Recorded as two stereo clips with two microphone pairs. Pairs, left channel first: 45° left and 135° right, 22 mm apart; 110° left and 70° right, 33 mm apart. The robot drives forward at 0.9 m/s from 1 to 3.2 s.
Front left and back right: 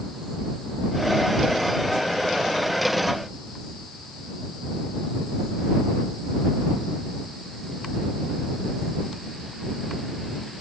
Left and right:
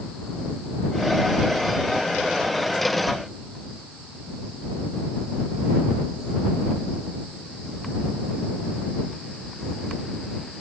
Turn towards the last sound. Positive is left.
No sound to turn to.